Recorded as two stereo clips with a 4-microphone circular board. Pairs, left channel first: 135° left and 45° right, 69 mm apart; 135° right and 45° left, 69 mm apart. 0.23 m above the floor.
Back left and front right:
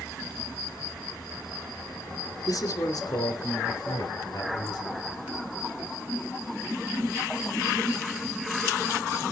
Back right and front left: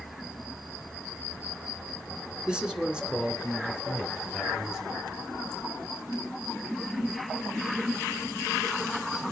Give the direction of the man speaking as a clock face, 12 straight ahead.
8 o'clock.